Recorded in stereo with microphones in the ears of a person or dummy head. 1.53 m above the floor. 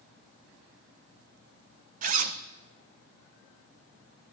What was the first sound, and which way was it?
A zipper, 40° right (ahead or behind).